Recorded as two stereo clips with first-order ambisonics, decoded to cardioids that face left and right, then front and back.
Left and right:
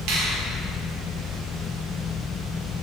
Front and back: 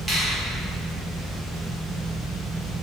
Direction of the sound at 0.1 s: 100° right.